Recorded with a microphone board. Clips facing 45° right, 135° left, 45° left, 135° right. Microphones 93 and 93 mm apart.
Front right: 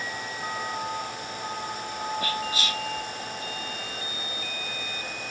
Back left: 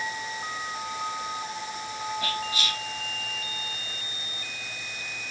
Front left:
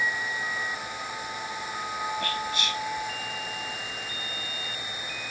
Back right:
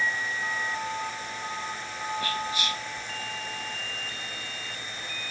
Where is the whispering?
55° right, 1.4 m.